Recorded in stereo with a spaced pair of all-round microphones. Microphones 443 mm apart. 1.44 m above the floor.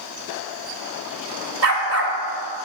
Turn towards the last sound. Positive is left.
turn(degrees=-30)  # may be behind; listen again after turning